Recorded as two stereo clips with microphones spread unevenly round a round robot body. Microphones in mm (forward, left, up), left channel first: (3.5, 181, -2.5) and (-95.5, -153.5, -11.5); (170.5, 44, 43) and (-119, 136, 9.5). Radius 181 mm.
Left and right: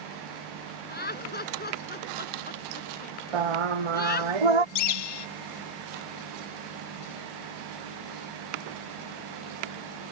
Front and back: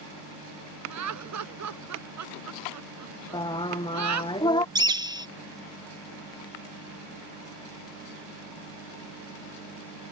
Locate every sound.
0.9 s laughter: 135° left
3.3 s singing: 95° right
4.8 s a bird: 85° left